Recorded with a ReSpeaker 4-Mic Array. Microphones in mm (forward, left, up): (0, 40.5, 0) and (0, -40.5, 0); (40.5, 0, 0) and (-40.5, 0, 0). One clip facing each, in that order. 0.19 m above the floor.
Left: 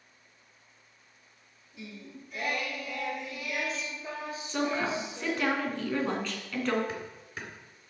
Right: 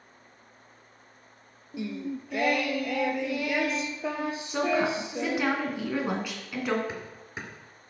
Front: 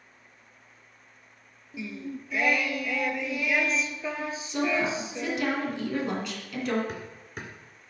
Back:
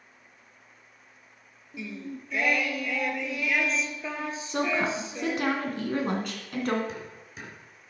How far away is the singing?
About 0.8 m.